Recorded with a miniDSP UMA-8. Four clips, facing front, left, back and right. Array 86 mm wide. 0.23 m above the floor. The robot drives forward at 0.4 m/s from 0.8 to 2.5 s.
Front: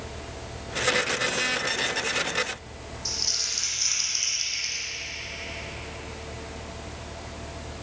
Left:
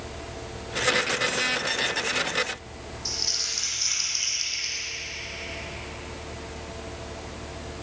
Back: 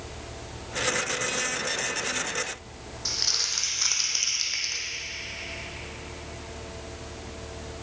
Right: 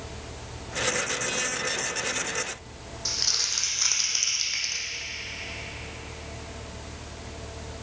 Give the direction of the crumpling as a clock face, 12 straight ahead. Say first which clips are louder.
Even, back 1 dB; 5 o'clock.